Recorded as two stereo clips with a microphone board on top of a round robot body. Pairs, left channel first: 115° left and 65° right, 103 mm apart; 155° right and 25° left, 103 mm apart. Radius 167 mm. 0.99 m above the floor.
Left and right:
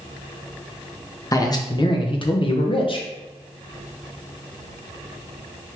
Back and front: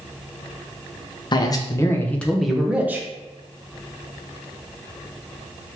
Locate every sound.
1.3 s a man speaking: 165° left, 1.2 m; by 3.1 s 90° left, 1.2 m